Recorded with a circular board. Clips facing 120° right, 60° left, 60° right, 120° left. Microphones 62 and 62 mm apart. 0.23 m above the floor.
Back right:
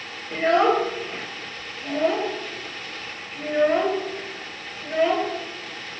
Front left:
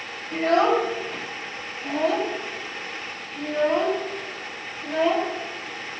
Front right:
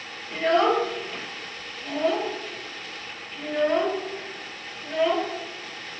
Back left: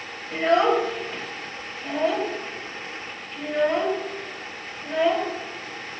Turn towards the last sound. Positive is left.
turn(degrees=-160)